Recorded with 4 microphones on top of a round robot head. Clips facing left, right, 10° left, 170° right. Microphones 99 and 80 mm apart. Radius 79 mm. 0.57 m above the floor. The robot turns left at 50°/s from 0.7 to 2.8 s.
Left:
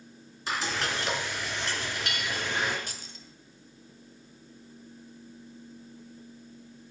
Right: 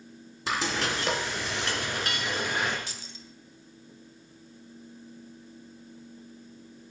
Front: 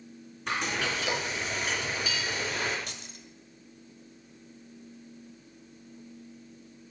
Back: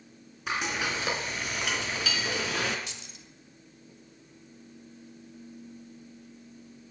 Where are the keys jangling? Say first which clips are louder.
Even, front 2 dB; 50° left, 1.8 m.